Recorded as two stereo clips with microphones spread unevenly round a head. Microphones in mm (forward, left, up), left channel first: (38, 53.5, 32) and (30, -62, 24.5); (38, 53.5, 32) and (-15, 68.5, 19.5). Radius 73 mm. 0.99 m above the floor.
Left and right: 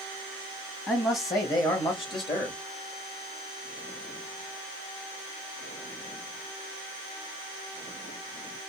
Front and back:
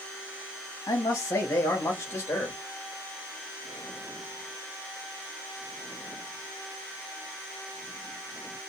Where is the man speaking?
20° left, 1.2 m; by 2.6 s 45° left, 1.9 m.